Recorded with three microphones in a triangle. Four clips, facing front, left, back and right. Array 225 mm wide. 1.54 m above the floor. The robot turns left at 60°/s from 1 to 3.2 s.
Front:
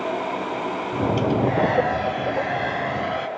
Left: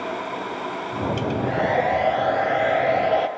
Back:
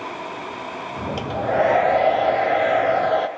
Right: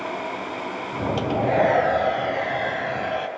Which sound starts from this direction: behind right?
A hair dryer, at 1.2 s.